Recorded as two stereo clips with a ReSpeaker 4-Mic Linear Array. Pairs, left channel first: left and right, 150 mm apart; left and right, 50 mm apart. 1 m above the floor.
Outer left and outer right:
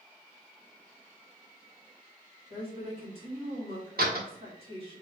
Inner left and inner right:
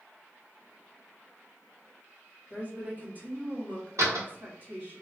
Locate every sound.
2.5 s a woman speaking: 35° right (ahead or behind), 1.9 m
4.0 s a door slam: 80° right, 1.4 m